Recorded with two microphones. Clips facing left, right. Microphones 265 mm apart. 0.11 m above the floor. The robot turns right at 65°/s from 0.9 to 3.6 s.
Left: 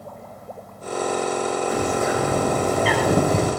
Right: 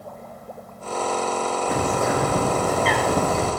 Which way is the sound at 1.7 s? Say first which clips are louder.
Right 2 dB; 75° right.